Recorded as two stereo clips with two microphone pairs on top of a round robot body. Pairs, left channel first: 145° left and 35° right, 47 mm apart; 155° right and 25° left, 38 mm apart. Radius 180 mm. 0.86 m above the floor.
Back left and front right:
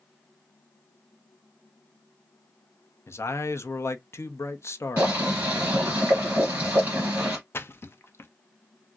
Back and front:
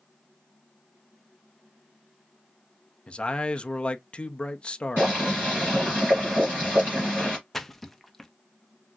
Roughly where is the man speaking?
Behind left.